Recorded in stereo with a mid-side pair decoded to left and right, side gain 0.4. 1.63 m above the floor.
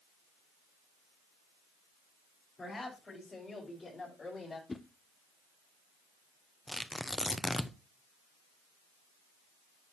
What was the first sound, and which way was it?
A woman speaking, 35° left.